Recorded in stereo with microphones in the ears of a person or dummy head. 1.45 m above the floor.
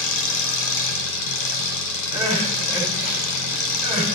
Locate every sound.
0.0 s an engine running: 70° left (ahead or behind), 5 m
2.1 s crying: 15° right (ahead or behind), 8.5 m